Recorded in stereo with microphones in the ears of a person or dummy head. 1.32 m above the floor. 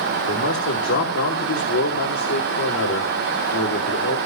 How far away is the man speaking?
About 3 m.